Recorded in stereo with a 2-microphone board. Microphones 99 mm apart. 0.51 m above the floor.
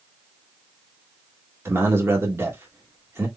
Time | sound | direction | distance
1.6 | a man speaking | 25° right (ahead or behind) | 1.4 m